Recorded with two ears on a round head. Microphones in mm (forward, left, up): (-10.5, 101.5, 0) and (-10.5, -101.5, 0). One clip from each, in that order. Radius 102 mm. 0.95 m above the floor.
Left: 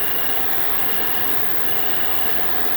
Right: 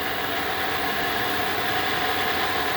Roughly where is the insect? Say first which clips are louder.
Right 2 dB; left.